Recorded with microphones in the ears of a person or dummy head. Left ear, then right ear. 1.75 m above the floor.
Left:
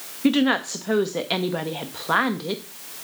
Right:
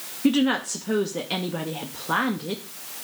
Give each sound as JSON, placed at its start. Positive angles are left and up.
{"t": 0.2, "sound": "a woman speaking", "side_deg": 15, "distance_m": 0.6}